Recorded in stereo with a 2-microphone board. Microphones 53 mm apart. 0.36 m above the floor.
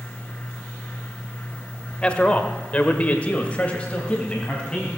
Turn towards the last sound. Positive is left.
turn(degrees=20)  # may be behind; listen again after turning